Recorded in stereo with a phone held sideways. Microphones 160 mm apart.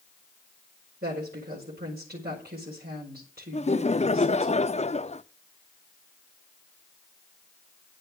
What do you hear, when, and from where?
1.0 s a woman speaking: 85° right, 5 m
3.5 s laughter: 45° left (ahead or behind), 0.7 m